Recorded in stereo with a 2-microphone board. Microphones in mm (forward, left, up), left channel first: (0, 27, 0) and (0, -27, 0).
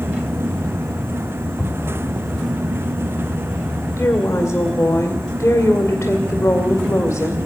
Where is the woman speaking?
50° left (ahead or behind), 2 m.